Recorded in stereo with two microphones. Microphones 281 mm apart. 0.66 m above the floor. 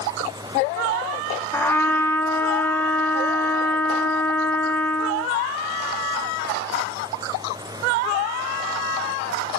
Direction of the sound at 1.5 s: 10° left (ahead or behind).